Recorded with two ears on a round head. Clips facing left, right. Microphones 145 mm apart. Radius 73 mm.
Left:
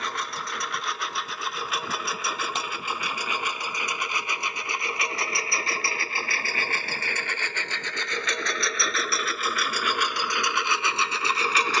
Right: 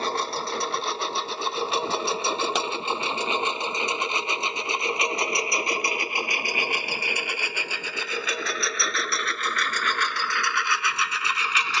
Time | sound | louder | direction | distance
0.0 | a lawn mower | right 5 dB | 25° right (ahead or behind) | ?
2.5 | a clap | right 5 dB | 55° right (ahead or behind) | ?